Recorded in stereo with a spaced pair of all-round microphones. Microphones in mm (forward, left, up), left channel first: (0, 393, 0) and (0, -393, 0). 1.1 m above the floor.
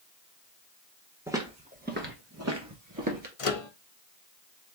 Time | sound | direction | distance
1.3 | footsteps | 5° right (ahead or behind) | 1.1 m
3.4 | a microwave | 45° left (ahead or behind) | 0.6 m